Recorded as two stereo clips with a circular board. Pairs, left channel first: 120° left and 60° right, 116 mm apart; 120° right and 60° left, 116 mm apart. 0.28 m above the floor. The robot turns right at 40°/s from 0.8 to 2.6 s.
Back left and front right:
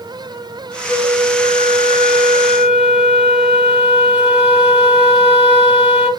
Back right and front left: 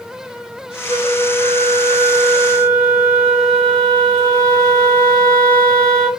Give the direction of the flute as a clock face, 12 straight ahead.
7 o'clock.